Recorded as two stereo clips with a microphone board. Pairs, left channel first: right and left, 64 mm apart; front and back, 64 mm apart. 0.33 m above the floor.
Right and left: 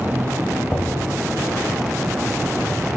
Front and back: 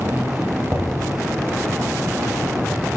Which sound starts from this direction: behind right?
Knocking, at 0.7 s.